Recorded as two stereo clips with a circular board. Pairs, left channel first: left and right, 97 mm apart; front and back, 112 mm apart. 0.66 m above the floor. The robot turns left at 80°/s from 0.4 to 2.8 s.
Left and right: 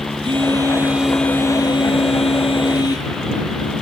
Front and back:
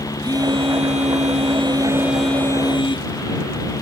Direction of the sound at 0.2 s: 125° right.